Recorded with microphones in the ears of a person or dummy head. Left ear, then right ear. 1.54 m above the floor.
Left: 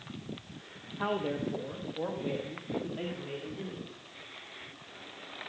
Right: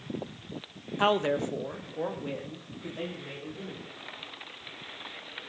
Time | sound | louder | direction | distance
1.0 | a man speaking | right 7 dB | 70° right (ahead or behind) | 0.9 m